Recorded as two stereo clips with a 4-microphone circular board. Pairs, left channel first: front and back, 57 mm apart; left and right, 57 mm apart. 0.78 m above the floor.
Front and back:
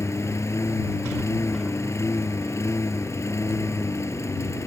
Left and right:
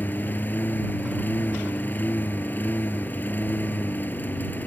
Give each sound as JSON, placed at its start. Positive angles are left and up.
{"t": 0.0, "sound": "a lawn mower", "azimuth_deg": 35}